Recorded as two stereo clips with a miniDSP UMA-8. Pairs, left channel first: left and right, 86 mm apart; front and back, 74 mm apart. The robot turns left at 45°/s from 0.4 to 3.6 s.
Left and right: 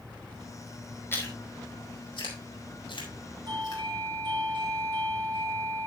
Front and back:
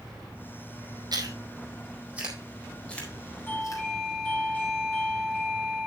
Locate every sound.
1.1 s chewing: 155° left, 4.5 m; by 3.8 s 45° left, 4.5 m
3.5 s a doorbell: 65° right, 4.5 m; by 5.9 s 70° right, 4.5 m